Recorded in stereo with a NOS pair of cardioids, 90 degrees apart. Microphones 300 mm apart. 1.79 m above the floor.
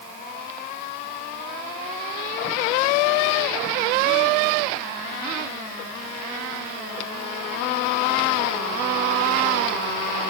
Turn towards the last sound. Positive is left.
No sound to turn to.